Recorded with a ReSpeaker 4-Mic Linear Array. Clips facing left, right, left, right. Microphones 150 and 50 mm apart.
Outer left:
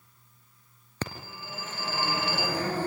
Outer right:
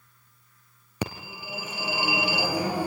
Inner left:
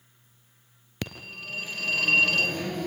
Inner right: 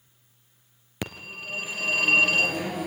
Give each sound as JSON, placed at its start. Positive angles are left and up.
{"t": 1.0, "sound": "a phone ringing", "side_deg": -10, "distance_m": 2.0}